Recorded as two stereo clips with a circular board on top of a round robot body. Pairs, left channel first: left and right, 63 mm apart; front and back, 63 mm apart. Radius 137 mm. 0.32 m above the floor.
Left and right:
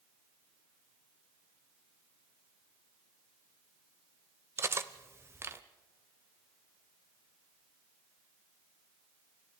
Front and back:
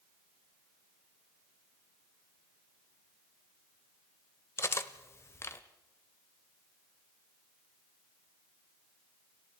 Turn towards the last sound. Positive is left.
turn(degrees=-45)